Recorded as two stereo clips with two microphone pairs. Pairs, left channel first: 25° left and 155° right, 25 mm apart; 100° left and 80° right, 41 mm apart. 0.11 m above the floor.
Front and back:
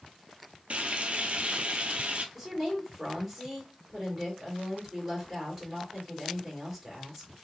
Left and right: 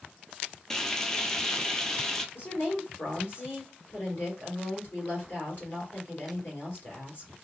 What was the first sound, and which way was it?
Frying, 175° left.